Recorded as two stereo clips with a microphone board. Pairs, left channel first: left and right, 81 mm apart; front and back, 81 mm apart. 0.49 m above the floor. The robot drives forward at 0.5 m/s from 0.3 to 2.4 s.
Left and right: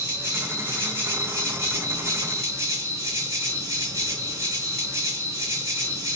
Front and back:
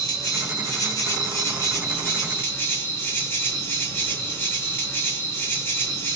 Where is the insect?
35° right, 3 m; by 6.2 s 55° right, 2.5 m.